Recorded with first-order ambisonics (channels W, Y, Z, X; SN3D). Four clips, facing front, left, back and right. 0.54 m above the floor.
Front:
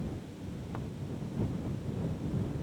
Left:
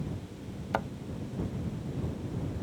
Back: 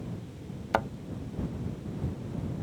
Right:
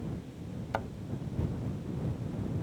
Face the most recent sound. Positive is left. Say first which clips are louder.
# left 3 dB, back 16 dB
turn(degrees=170)